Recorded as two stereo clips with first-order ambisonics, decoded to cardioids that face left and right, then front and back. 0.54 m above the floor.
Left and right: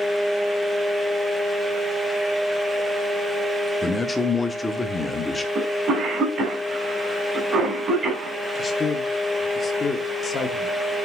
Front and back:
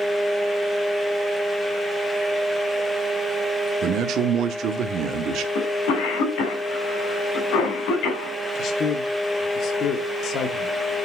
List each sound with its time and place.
3.8 s a man speaking: 165° left, 0.9 m
5.5 s a cough: 25° right, 3.5 m
8.6 s a man speaking: 30° left, 1.1 m